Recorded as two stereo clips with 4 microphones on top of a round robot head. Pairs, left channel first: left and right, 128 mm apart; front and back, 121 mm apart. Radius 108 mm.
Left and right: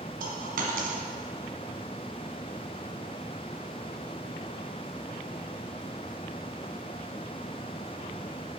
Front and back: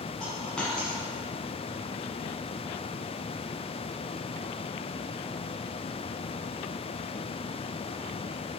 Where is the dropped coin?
85° right, 1.2 m.